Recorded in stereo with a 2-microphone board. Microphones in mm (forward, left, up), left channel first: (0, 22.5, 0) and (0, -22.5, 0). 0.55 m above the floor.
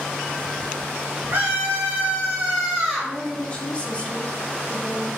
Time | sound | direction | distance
1.3 | a scream | 50° right (ahead or behind) | 0.9 m
3.0 | a woman speaking | 25° left (ahead or behind) | 0.7 m